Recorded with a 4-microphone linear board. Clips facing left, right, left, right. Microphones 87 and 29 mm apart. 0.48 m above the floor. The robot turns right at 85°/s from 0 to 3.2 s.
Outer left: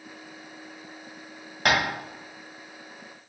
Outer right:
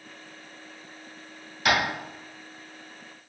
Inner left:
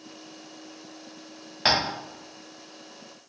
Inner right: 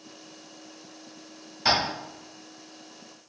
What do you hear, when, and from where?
1.6 s tapping: 55° left (ahead or behind), 1.2 m; by 1.8 s 40° left (ahead or behind), 1.2 m